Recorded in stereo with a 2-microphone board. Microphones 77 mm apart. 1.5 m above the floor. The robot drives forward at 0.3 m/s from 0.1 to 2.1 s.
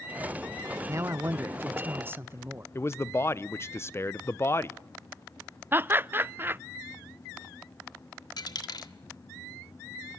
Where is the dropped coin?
60° left (ahead or behind), 1.6 m.